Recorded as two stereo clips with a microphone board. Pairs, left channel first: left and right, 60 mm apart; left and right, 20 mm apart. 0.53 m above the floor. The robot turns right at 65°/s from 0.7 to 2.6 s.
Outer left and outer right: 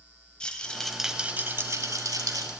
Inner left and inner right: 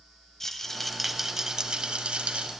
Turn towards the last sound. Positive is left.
turn(degrees=-75)